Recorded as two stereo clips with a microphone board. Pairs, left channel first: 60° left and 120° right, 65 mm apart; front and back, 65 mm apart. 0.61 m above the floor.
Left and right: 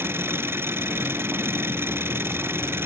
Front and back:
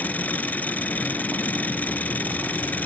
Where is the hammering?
I don't hear hammering.